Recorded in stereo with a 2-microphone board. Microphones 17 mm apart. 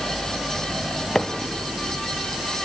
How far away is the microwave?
About 1.2 m.